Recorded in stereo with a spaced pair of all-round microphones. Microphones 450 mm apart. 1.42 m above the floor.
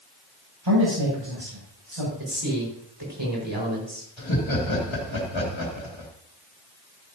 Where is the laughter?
90° left, 2.5 m.